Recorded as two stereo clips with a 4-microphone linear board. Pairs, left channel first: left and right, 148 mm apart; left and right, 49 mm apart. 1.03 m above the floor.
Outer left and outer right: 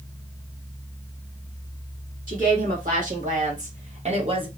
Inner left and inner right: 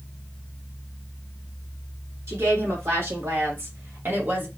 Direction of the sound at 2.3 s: 65° right (ahead or behind).